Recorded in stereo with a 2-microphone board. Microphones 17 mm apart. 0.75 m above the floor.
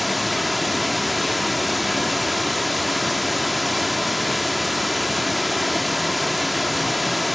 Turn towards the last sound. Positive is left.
turn(degrees=0)  # may be behind; listen again after turning